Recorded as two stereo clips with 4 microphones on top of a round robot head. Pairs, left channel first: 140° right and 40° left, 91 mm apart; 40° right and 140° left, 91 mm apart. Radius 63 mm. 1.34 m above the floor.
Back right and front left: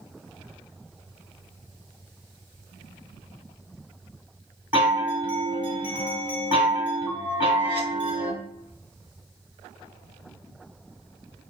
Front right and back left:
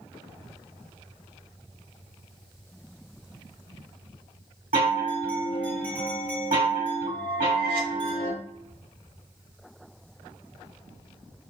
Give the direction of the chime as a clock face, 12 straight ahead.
8 o'clock.